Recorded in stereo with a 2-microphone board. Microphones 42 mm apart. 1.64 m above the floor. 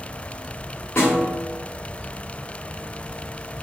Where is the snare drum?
90° left, 1.1 m.